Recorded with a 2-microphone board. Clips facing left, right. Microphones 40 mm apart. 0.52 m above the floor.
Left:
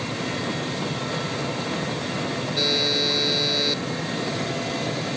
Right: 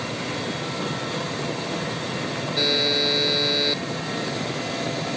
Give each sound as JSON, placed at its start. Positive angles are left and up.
{"t": 2.6, "sound": "a buzzer", "side_deg": -10}